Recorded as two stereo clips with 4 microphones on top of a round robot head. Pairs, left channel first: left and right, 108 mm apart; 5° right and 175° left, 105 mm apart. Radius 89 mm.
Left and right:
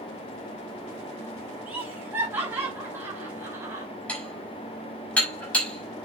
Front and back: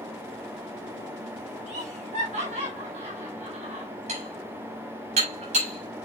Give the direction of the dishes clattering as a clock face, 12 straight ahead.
6 o'clock.